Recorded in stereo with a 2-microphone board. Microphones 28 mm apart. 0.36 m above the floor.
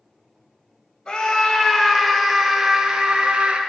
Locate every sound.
1.1 s a scream: 30° left (ahead or behind), 1.9 m; by 3.6 s 30° right (ahead or behind), 1.7 m